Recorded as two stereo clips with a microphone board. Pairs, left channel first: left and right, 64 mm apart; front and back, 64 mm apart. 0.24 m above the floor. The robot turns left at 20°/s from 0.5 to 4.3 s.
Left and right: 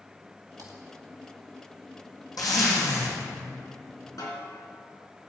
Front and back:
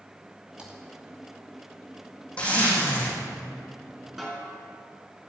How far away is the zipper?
About 3.5 m.